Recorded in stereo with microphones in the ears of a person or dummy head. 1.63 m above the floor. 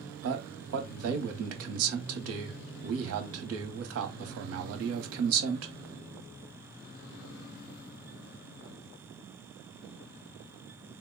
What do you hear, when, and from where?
0.2 s a man speaking: 75° right (ahead or behind), 1.0 m